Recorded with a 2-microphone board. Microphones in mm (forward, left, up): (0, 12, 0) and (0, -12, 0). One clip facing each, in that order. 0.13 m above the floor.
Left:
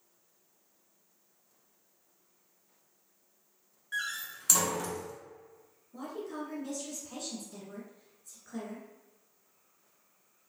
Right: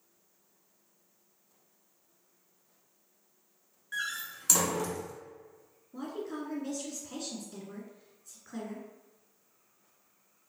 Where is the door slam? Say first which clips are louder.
Even; centre (ahead or behind), 0.9 m.